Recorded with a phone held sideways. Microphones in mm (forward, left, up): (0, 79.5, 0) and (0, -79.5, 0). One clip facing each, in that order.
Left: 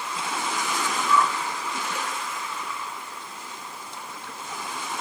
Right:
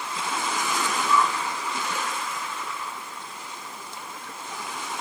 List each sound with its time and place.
1.1 s a whoosh: 10° right (ahead or behind), 2 m